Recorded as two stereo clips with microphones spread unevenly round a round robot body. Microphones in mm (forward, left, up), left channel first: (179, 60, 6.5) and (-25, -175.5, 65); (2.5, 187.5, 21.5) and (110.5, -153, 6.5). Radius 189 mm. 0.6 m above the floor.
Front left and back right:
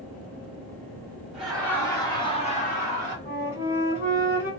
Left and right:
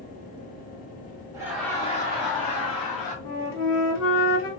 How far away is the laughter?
About 1.0 m.